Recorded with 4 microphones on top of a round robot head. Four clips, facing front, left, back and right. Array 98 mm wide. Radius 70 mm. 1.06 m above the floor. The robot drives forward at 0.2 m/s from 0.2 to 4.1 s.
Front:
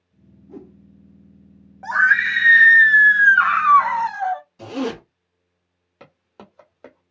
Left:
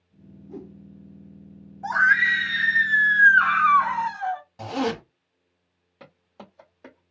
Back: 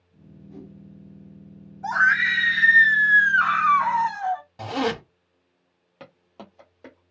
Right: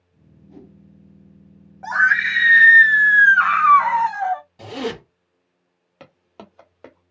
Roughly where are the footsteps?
Right.